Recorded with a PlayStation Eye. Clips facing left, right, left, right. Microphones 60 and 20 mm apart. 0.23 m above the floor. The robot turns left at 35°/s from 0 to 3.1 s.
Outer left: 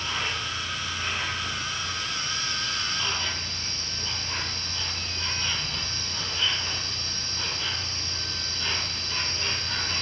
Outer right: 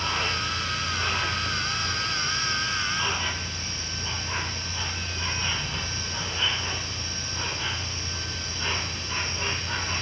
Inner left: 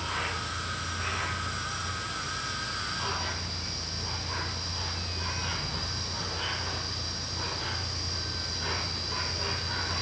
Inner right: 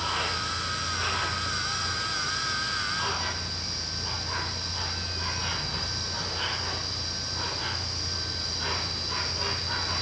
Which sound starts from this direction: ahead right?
An insect, at 0.0 s.